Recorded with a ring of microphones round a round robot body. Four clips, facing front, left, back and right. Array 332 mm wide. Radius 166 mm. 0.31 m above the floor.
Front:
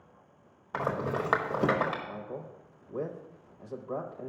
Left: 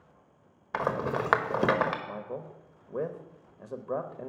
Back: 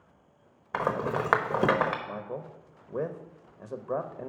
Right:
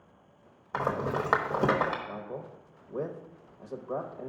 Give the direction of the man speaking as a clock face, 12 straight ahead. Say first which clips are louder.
Left 1 dB, back 3 dB; 7 o'clock.